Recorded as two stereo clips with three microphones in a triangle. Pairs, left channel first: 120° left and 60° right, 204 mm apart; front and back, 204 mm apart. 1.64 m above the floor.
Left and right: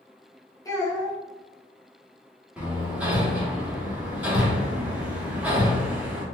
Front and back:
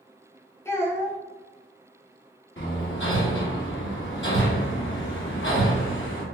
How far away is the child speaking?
About 0.9 m.